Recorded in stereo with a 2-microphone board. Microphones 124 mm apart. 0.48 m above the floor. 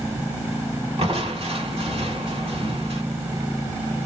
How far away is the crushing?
About 2 m.